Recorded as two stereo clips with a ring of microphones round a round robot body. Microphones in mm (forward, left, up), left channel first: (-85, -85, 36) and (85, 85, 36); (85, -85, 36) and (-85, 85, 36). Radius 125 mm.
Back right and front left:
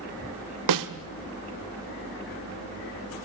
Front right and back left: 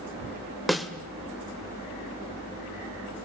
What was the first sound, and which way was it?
A snare drum, 45° left.